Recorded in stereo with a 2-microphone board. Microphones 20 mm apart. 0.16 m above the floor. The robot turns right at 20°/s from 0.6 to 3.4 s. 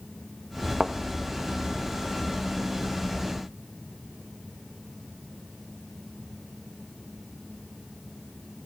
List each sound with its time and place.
0.8 s a thud: 30° right (ahead or behind), 1.4 m